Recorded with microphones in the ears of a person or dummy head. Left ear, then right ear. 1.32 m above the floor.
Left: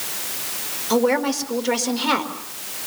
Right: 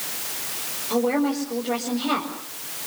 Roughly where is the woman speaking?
Left.